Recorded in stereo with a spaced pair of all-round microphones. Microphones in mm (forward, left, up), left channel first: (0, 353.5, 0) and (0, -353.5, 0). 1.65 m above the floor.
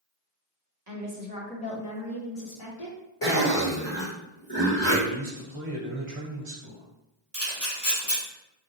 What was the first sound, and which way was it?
A woman speaking, 30° right (ahead or behind).